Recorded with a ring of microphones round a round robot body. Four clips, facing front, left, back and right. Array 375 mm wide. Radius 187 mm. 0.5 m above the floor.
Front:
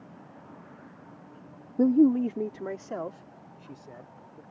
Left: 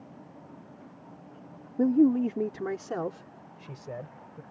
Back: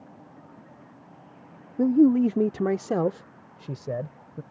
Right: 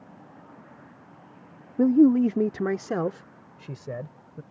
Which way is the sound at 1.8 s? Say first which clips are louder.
Right 4 dB, back 2 dB; 60° right.